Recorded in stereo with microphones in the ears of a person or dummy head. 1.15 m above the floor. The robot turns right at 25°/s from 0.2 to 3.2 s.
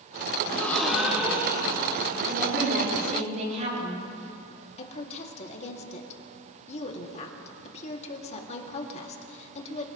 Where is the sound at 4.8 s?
35° left (ahead or behind), 2.5 m.